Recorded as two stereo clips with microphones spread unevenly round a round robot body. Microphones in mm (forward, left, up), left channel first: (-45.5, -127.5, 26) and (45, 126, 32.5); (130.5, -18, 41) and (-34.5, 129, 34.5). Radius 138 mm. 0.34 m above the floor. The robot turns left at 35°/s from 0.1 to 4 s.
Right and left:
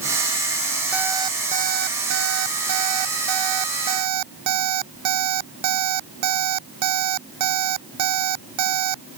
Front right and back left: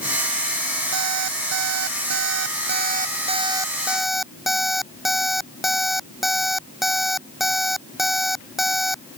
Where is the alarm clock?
155° left; by 9.0 s 50° left.